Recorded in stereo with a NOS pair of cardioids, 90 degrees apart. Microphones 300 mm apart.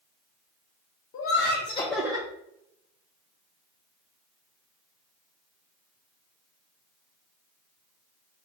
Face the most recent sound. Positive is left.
turn(degrees=-25)